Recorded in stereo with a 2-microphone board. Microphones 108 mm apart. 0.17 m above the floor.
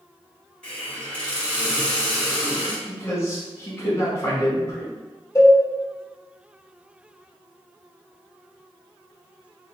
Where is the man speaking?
30° left (ahead or behind), 1.1 m.